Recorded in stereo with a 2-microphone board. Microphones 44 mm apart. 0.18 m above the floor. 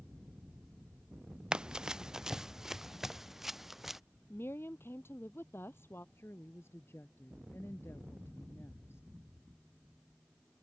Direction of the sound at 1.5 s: 20° right (ahead or behind).